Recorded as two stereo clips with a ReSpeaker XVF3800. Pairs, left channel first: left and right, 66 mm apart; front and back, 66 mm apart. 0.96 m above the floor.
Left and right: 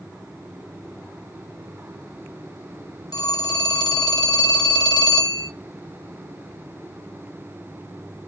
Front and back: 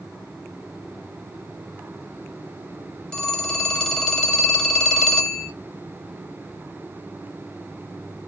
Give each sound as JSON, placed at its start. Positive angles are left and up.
{"t": 3.1, "sound": "a phone ringing", "azimuth_deg": 80, "distance_m": 0.6}